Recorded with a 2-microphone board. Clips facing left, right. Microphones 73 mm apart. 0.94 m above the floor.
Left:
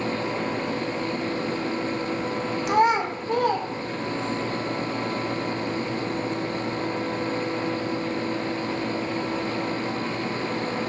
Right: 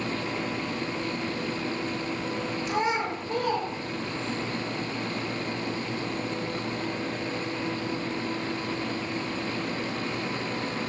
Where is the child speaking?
65° left (ahead or behind), 0.5 m; by 4.4 s 40° left (ahead or behind), 1.4 m.